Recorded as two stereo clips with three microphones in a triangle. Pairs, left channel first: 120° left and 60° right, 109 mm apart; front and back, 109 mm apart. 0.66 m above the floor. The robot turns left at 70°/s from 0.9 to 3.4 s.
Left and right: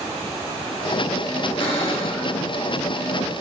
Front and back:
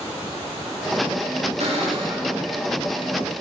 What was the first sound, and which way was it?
A cupboard door, 165° left.